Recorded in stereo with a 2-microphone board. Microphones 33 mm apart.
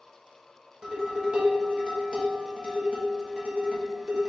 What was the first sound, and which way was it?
Dishes clattering, 30° right (ahead or behind).